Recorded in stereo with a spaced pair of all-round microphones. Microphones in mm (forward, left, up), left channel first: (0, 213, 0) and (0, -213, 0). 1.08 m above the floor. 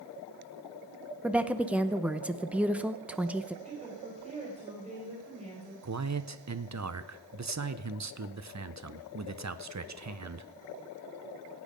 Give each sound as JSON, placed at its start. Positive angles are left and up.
{"t": 1.2, "sound": "a woman speaking", "side_deg": -5, "distance_m": 0.6}
{"t": 3.6, "sound": "a woman speaking", "side_deg": -15, "distance_m": 4.5}
{"t": 5.8, "sound": "a man speaking", "side_deg": -40, "distance_m": 0.6}